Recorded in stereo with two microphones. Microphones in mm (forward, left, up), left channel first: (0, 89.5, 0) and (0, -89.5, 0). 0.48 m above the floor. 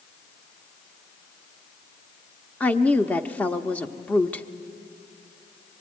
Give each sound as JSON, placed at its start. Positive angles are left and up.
{"t": 2.6, "sound": "a woman speaking", "side_deg": 10, "distance_m": 0.7}